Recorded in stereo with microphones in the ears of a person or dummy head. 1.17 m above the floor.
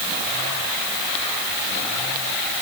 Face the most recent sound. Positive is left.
No sound to turn to.